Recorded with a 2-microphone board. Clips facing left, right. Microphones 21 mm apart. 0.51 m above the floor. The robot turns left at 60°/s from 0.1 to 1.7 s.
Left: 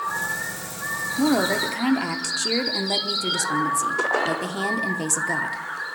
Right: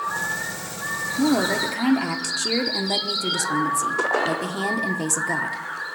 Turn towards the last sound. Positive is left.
turn(degrees=0)  # may be behind; listen again after turning